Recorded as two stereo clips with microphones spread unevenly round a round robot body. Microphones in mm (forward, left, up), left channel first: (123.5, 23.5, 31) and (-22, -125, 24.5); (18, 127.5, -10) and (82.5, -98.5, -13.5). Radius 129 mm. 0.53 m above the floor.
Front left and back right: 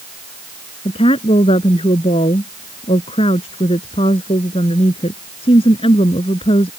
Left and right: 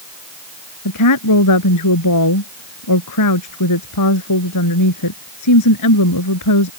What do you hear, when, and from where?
0.8 s a woman speaking: 115° left